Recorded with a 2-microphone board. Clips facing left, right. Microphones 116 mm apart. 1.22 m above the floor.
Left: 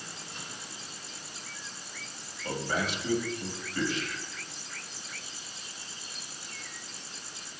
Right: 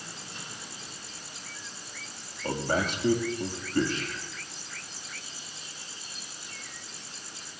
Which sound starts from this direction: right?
A man speaking, at 2.4 s.